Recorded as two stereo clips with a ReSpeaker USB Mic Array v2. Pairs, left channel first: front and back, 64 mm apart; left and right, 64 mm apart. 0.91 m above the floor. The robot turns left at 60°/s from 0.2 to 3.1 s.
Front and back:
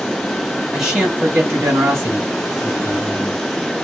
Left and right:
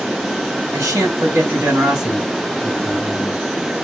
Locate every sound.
0.7 s a man speaking: 90° right, 1.7 m; by 3.4 s 125° left, 1.7 m